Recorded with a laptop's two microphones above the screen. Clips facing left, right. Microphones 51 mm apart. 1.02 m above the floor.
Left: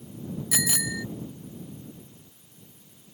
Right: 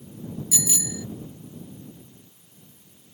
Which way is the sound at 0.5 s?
70° left (ahead or behind).